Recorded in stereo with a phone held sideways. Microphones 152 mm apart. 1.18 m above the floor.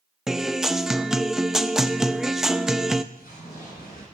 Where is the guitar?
Centre (ahead or behind), 0.5 m.